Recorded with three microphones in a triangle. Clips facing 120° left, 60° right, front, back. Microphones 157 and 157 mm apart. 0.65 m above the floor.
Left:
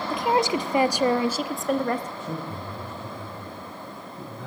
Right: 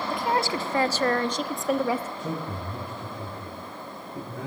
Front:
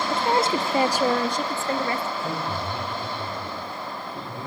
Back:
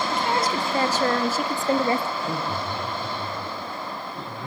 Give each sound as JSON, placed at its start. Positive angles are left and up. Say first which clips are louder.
{"t": 0.1, "sound": "a woman speaking", "louder": "left 4 dB, front 4 dB", "azimuth_deg": 50, "distance_m": 1.1}
{"t": 2.2, "sound": "a man speaking", "louder": "right 1 dB, back 1 dB", "azimuth_deg": -65, "distance_m": 9.0}